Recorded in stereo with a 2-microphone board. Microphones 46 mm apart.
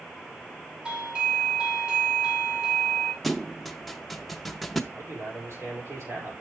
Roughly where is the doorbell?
Centre.